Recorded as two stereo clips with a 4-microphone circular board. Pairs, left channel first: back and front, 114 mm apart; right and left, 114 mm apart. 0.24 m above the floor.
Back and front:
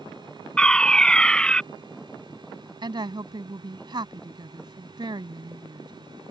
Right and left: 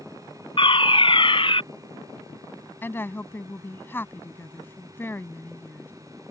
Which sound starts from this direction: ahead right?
A woman speaking, at 2.8 s.